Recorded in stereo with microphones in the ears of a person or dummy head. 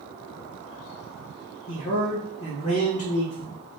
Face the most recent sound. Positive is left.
turn(degrees=85)